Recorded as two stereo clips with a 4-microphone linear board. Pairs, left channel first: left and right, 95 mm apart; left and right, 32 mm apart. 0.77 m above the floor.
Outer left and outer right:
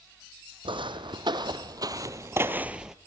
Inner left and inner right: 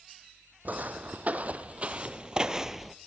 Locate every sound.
0.7 s footsteps: 60° right (ahead or behind), 1.5 m; by 3.0 s 5° right (ahead or behind), 0.8 m